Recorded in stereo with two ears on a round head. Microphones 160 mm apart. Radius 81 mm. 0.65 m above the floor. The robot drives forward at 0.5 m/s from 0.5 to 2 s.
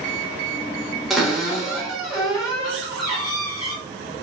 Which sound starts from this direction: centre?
A cupboard door, at 1.1 s.